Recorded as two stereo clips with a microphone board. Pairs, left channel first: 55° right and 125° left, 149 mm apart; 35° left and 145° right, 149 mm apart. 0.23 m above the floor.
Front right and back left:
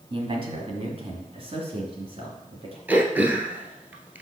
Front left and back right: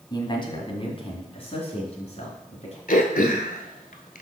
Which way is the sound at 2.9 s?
45° left.